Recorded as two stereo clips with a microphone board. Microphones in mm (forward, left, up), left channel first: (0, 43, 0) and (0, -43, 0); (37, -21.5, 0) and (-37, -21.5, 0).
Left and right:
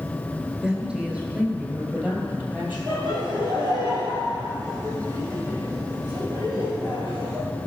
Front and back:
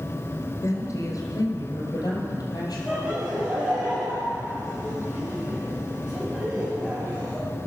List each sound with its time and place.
0.6 s a woman speaking: 15° right, 1.8 m; by 2.8 s 20° right, 3.5 m
2.9 s laughter: 100° right, 3 m